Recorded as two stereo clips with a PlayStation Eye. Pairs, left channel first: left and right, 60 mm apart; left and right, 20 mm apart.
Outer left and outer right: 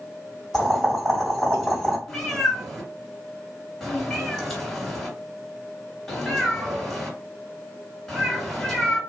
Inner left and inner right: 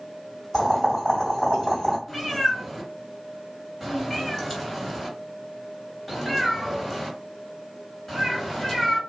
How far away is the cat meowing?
About 1.9 m.